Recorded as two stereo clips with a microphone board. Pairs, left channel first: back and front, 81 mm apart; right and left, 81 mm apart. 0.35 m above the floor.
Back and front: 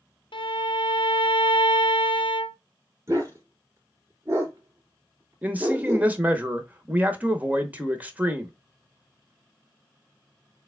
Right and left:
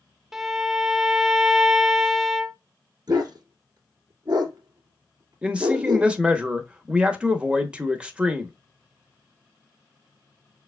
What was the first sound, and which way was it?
A violin, 175° left.